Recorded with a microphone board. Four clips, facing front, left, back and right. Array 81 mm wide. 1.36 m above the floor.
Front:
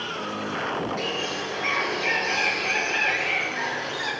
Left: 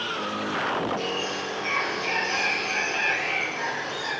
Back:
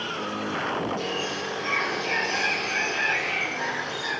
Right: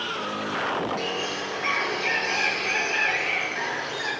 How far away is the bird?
About 4 m.